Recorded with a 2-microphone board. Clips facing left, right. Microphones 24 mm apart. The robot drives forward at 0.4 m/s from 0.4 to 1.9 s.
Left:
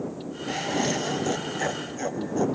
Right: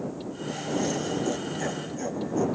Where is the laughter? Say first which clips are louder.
Left 3 dB; 45° left (ahead or behind), 0.8 m; by 2.5 s 30° left (ahead or behind), 1.2 m.